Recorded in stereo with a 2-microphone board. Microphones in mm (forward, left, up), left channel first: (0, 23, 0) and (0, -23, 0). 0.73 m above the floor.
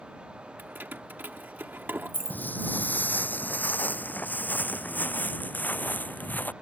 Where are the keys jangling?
45° right (ahead or behind).